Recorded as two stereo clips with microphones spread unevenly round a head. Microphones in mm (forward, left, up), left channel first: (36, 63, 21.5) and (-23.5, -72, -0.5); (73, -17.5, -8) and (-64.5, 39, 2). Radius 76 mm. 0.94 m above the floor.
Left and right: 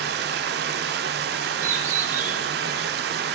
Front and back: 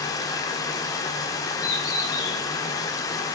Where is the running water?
95° right, 1.1 m.